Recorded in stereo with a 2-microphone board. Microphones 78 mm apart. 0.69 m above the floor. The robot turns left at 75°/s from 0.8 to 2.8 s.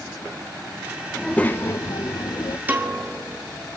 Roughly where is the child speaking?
Behind.